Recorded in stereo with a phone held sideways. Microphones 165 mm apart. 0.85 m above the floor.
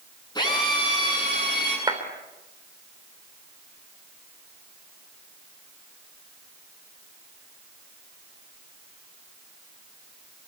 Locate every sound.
0.3 s a drill: 25° left (ahead or behind), 9 m
1.9 s a clap: 25° right (ahead or behind), 3 m